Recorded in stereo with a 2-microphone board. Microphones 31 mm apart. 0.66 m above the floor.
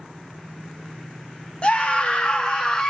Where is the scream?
35° left (ahead or behind), 0.9 m; by 2.9 s 25° left (ahead or behind), 1.0 m.